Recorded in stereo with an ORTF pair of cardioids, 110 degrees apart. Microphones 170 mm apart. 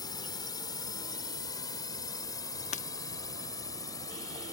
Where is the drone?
25° left; by 4.5 s 20° left.